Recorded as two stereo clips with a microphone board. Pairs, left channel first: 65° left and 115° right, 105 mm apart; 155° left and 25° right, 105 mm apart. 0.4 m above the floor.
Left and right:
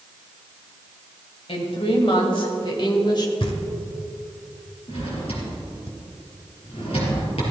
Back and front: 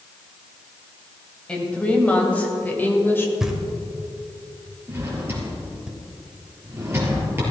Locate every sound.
1.5 s a woman speaking: 80° left, 2.5 m; by 3.3 s 95° left, 1.6 m
3.4 s knocking: 60° left, 1.2 m
4.9 s a drawer: 45° left, 3.5 m